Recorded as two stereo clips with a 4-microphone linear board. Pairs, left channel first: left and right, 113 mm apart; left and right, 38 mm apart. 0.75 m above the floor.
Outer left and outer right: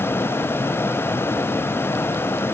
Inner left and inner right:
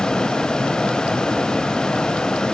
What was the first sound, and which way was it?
Only background noise.